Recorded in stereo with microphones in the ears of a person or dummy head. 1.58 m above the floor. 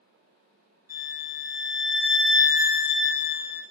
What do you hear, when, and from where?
0.9 s a violin: 10° right (ahead or behind), 1.9 m